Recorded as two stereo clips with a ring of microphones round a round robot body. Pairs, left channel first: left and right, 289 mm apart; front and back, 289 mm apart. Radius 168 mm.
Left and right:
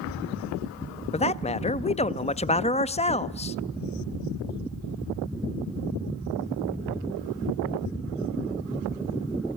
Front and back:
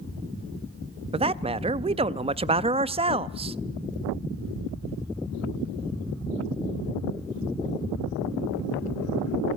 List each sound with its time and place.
1.1 s a man speaking: 135° left, 0.5 m